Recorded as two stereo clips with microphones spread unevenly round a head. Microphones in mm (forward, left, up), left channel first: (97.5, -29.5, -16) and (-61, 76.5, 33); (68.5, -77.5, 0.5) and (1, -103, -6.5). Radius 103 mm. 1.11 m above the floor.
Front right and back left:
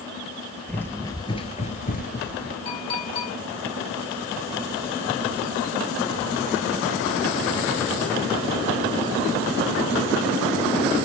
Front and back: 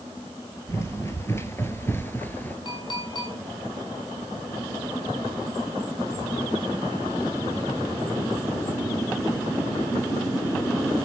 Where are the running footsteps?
60° left, 1.6 m; by 2.5 s 25° right, 1.4 m.